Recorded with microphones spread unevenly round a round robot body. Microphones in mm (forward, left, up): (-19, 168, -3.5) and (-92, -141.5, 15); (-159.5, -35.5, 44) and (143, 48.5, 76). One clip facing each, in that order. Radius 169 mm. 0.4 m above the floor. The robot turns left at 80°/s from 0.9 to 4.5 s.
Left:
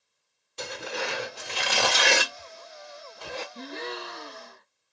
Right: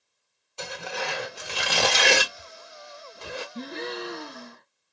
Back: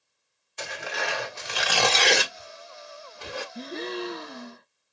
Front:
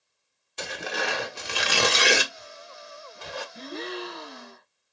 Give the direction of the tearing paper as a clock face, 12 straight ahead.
11 o'clock.